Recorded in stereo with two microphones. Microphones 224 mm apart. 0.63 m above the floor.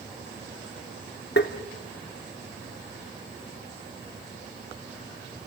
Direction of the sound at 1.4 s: 55° left (ahead or behind).